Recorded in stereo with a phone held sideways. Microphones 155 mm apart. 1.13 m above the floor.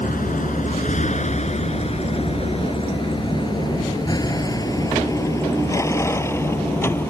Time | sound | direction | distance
0.0 | a vehicle | 60° left (ahead or behind) | ?